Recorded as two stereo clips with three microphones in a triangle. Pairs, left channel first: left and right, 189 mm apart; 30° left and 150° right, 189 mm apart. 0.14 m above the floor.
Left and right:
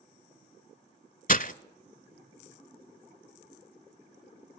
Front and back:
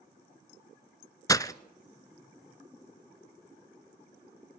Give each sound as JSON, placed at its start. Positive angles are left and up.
{"t": 1.3, "sound": "breaking glass", "azimuth_deg": 90, "distance_m": 0.5}